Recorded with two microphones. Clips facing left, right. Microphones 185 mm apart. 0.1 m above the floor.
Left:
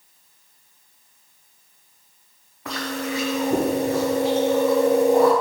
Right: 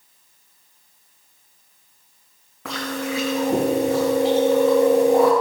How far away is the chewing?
About 3.5 m.